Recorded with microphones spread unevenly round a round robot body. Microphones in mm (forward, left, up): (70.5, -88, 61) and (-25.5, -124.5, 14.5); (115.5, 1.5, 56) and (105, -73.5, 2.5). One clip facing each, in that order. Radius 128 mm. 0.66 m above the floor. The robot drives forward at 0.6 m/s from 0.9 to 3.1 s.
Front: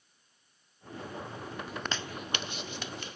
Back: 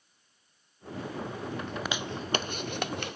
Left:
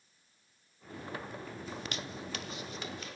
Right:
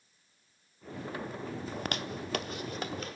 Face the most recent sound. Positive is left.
turn(degrees=-140)